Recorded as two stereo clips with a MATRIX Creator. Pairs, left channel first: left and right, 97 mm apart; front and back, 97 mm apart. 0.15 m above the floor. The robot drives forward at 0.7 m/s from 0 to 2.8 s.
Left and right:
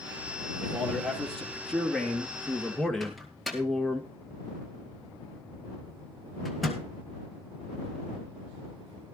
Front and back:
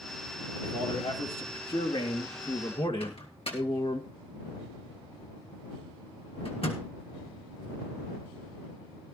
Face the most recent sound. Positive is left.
turn(degrees=0)